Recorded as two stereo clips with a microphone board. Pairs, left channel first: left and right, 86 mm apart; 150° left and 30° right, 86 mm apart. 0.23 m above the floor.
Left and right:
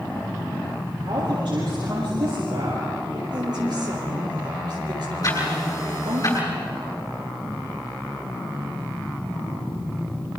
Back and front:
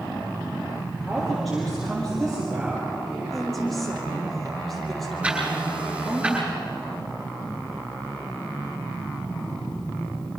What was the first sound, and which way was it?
A woman speaking, 120° right.